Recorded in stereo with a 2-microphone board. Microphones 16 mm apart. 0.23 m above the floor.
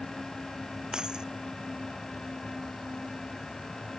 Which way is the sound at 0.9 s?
50° right (ahead or behind).